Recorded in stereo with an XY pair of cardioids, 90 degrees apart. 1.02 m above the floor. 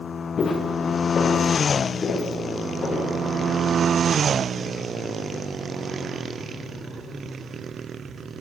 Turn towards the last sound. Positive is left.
turn(degrees=50)